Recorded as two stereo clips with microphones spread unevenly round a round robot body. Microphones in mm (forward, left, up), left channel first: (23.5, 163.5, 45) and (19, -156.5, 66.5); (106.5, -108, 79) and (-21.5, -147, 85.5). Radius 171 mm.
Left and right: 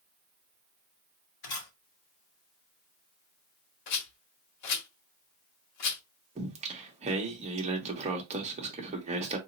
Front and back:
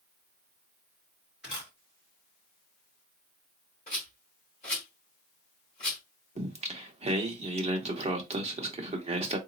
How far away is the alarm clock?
I don't hear an alarm clock.